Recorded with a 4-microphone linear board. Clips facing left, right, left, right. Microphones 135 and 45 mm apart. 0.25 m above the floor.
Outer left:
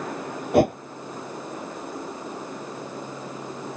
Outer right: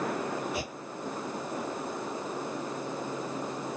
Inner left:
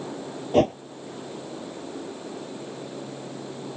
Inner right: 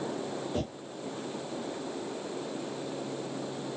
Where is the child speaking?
I don't hear a child speaking.